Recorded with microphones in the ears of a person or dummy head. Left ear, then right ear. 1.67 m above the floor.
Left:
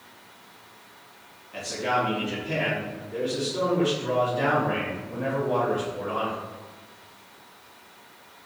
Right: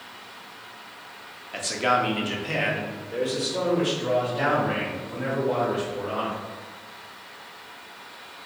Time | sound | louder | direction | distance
1.5 | a man speaking | right 3 dB | 30° right (ahead or behind) | 0.7 m